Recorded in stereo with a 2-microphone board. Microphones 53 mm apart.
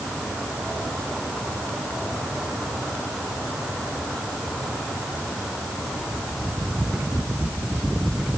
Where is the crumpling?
I don't hear crumpling.